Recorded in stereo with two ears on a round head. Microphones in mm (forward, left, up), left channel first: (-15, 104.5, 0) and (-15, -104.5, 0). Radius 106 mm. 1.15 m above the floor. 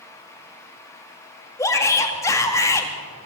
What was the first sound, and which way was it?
A shout, 15° left (ahead or behind).